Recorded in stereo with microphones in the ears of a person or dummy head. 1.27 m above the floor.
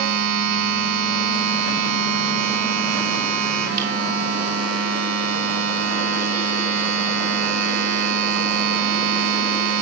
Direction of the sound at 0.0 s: 75° right (ahead or behind).